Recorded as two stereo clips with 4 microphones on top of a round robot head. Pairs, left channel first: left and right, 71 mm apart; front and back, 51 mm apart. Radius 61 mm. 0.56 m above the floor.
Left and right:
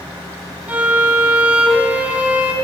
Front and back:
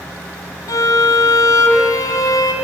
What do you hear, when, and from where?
0.7 s a violin: 15° right, 2.5 m